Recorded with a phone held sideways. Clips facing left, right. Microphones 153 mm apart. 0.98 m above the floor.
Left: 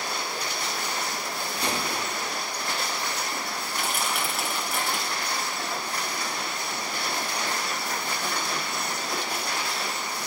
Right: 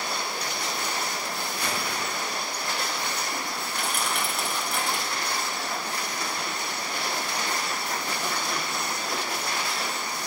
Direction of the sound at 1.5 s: 30° left (ahead or behind).